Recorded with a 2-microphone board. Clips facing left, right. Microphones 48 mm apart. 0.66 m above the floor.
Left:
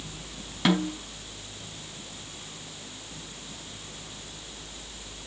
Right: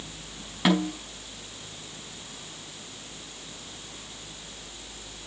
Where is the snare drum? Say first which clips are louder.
Right 1 dB; 10° right (ahead or behind), 5 m.